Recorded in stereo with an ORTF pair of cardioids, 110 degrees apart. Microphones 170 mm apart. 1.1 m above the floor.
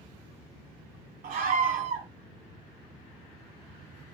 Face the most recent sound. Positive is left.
turn(degrees=-60)